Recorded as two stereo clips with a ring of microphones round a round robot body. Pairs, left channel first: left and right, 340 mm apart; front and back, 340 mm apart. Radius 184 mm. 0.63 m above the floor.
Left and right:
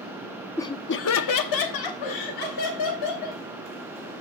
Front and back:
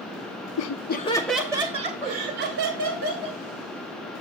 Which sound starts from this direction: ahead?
Laughter, at 0.6 s.